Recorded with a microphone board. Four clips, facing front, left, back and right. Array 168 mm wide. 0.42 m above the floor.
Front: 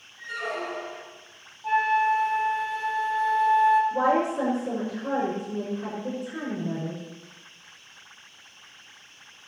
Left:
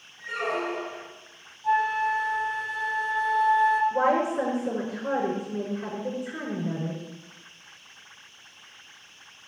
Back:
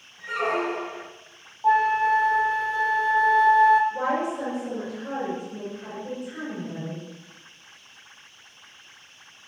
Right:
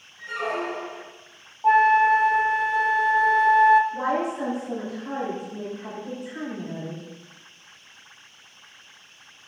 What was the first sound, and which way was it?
A squeak, 170° right.